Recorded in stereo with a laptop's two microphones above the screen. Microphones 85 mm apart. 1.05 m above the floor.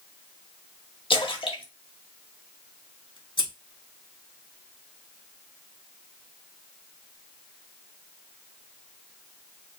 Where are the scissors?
65° left (ahead or behind), 1.7 m.